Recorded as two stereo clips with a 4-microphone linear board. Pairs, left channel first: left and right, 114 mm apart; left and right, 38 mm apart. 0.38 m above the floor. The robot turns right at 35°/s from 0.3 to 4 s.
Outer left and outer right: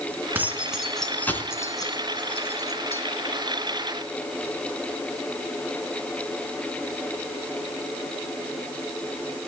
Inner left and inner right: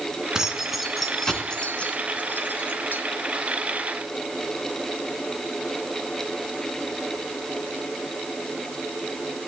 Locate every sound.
0.3 s keys jangling: 15° right (ahead or behind), 2.5 m; by 3.0 s 70° left (ahead or behind), 2.5 m